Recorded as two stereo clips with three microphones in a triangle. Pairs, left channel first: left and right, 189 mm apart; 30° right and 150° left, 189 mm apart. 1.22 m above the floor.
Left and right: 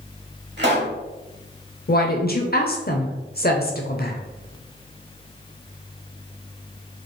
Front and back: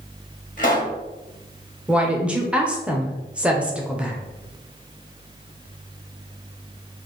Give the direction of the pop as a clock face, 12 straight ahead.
2 o'clock.